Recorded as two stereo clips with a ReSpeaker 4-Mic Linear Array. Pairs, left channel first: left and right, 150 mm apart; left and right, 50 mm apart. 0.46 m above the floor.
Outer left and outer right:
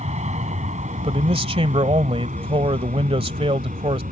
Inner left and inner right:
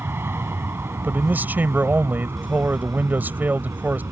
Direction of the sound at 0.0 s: 50° right (ahead or behind).